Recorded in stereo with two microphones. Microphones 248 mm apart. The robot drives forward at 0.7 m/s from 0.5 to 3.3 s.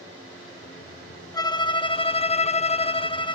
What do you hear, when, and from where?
1.3 s a violin: 15° left (ahead or behind); by 3.4 s 20° left (ahead or behind)